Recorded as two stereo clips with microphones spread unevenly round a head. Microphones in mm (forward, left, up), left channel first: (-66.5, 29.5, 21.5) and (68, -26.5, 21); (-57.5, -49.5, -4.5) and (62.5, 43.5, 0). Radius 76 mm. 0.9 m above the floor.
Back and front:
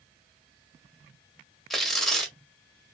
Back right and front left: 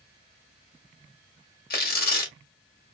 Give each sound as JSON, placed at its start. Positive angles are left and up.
{"t": 1.7, "sound": "tearing paper", "azimuth_deg": -115, "distance_m": 1.8}